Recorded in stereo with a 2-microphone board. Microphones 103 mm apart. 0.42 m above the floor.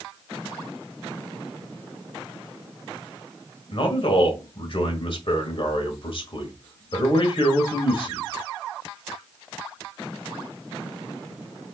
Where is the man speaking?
55° left (ahead or behind), 1.5 m.